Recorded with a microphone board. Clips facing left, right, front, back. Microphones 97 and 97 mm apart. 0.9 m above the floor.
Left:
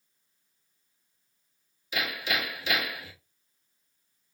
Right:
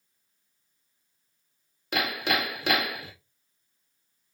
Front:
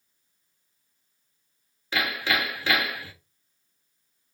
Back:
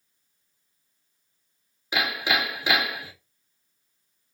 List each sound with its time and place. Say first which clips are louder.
1.9 s hammering: right 4 dB, back 1 dB; 110° right, 1.4 m